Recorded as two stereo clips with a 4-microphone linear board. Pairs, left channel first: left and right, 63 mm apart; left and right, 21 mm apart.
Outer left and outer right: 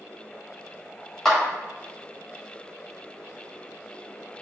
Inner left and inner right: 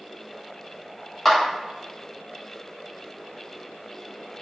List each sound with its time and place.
1.2 s a clap: 10° left (ahead or behind), 1.2 m